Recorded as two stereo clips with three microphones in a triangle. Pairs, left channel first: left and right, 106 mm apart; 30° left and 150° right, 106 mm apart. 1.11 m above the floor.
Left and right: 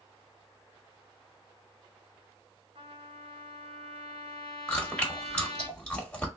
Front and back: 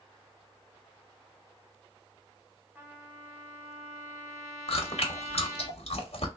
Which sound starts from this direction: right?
A trumpet, at 2.8 s.